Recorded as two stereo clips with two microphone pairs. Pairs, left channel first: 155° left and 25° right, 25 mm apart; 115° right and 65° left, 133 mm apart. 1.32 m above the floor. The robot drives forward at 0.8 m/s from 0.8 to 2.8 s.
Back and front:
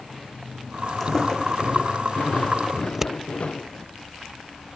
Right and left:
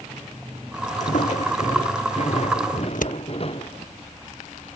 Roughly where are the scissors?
Right.